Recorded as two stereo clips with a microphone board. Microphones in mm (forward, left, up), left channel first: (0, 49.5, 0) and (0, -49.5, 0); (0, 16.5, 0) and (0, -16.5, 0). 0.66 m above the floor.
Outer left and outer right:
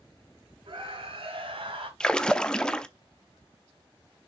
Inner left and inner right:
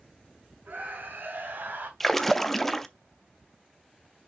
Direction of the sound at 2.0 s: 10° left (ahead or behind).